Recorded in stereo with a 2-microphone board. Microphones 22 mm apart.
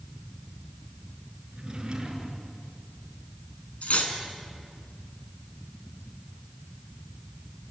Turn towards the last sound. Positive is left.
turn(degrees=70)  # may be behind; listen again after turning